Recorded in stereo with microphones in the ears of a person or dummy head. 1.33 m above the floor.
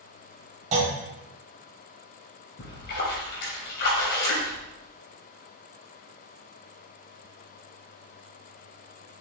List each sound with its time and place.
0.7 s a clunk: 40° right (ahead or behind), 2.5 m
2.6 s a splash: 55° left (ahead or behind), 2.5 m